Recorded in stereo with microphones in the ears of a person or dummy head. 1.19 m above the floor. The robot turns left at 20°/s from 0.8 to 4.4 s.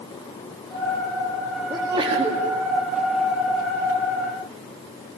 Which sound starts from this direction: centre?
A sneeze, at 1.7 s.